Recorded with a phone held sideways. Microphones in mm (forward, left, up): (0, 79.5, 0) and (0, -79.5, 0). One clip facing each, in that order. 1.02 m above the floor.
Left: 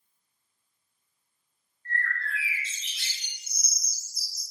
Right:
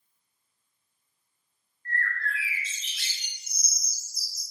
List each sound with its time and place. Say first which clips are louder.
1.9 s a bird: right 1 dB; 25° left (ahead or behind), 0.9 m